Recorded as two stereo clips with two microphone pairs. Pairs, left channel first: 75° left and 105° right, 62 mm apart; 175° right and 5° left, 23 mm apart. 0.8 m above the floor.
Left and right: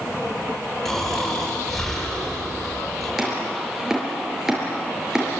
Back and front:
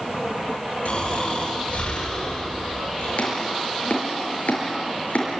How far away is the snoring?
About 9.5 m.